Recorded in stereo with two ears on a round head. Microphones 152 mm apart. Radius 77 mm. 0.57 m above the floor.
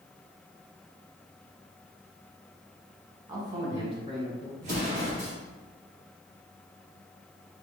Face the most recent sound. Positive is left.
turn(degrees=-45)  # may be behind; listen again after turning